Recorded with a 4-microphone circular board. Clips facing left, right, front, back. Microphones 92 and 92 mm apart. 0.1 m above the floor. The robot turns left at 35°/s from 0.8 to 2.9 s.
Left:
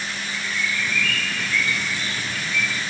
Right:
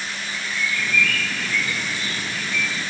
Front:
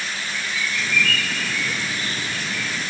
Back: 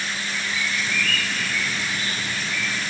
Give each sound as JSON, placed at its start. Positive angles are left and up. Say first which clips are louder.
{"t": 0.3, "sound": "a bird", "louder": "right 1 dB, front 1 dB", "azimuth_deg": -140, "distance_m": 2.5}